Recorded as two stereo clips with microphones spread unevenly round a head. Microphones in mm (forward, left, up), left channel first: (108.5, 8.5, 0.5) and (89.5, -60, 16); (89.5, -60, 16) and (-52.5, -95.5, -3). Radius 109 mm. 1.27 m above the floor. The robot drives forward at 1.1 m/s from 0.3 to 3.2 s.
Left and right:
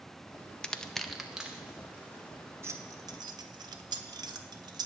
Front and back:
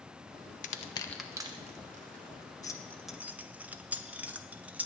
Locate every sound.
0.6 s crushing: 15° left, 0.7 m; by 2.5 s 175° left, 1.7 m
2.6 s keys jangling: 50° right, 1.2 m; by 4.9 s 85° right, 0.9 m